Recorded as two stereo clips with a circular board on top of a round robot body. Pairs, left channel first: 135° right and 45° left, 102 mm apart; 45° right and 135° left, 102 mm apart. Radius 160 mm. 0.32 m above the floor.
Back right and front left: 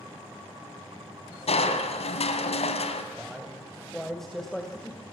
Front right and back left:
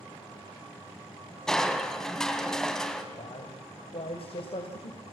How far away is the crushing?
About 2.5 m.